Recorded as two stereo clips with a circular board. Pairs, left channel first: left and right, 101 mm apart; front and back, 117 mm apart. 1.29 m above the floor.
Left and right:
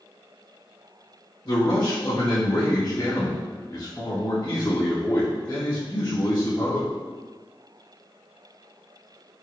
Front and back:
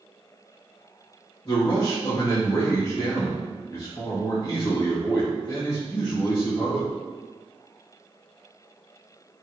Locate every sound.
1.4 s a man speaking: 45° left, 1.7 m